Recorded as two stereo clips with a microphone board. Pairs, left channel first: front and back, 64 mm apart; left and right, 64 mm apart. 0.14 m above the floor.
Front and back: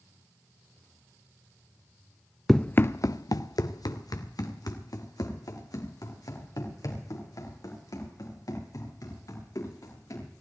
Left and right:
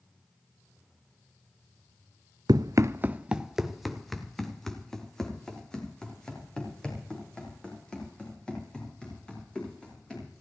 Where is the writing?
I don't hear writing.